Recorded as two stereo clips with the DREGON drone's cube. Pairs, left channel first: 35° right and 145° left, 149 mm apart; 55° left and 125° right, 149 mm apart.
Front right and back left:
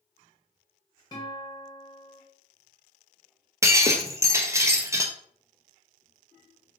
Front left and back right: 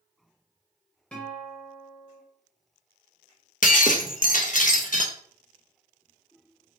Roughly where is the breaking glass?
Left.